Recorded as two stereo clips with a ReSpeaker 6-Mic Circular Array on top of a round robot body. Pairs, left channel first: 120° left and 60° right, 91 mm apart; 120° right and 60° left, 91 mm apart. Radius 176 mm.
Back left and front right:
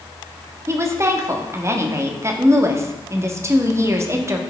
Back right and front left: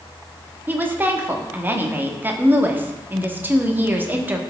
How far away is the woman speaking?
About 1.4 m.